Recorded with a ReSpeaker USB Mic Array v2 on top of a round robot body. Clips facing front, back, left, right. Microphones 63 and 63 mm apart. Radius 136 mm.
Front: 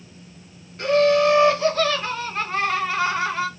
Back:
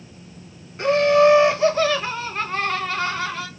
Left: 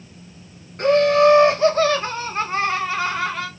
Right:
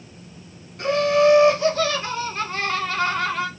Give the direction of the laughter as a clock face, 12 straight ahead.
8 o'clock.